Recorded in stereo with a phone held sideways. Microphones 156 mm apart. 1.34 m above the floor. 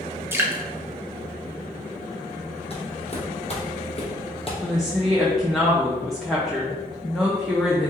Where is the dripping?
15° right (ahead or behind), 0.7 m.